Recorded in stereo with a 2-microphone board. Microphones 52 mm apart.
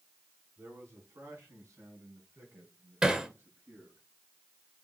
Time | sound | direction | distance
0.6 | a man speaking | 75° right (ahead or behind) | 5 m
3.0 | hammering | 15° right (ahead or behind) | 1.9 m